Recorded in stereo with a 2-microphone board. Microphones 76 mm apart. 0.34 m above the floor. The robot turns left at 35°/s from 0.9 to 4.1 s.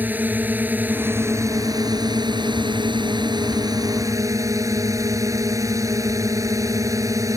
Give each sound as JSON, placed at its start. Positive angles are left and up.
{"t": 0.0, "sound": "a drone", "azimuth_deg": -25}